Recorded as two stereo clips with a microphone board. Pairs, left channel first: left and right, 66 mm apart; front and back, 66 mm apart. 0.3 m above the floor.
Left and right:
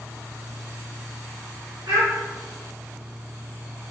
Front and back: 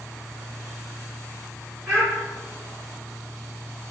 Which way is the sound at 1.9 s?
100° right.